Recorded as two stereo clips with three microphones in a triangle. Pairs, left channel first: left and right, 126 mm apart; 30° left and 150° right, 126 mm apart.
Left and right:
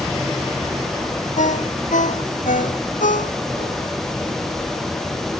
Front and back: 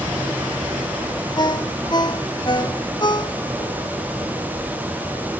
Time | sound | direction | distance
1.4 | a ringtone | 85° left | ?